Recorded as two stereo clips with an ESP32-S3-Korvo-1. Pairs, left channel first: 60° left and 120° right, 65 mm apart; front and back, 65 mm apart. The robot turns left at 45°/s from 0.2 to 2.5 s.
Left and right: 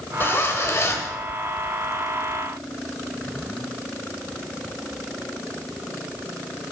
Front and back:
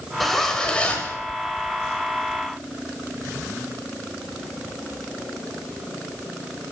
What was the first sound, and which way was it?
A zipper, 90° left.